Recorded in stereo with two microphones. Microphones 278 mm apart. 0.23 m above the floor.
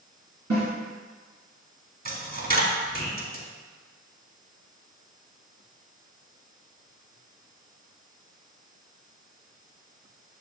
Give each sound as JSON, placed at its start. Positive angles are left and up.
{"t": 0.5, "sound": "a snare drum", "side_deg": -70, "distance_m": 1.8}
{"t": 2.0, "sound": "a dropped coin", "side_deg": -35, "distance_m": 0.8}